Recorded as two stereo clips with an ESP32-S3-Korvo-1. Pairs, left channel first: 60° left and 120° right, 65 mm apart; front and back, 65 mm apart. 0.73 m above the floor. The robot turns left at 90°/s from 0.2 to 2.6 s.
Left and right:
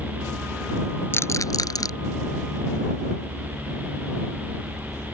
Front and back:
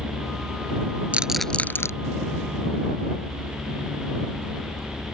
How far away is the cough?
I don't hear a cough.